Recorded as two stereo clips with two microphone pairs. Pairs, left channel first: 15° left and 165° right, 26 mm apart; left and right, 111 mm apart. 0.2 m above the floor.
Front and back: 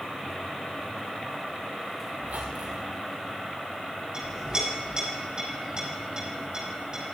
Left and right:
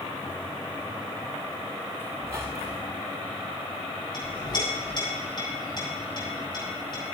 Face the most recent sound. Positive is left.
turn(degrees=135)